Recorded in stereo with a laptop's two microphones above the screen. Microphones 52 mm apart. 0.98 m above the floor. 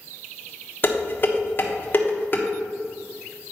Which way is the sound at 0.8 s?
40° left (ahead or behind).